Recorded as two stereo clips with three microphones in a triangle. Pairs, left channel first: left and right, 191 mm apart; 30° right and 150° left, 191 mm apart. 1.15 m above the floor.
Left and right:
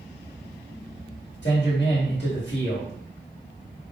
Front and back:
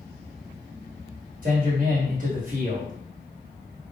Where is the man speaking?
105° left, 1.7 m.